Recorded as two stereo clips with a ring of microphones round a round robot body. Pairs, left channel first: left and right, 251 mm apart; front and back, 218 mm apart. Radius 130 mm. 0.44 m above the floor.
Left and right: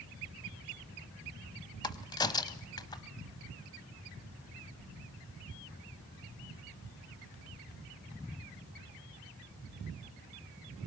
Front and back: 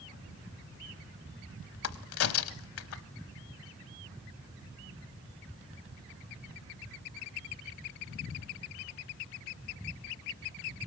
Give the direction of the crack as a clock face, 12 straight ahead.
11 o'clock.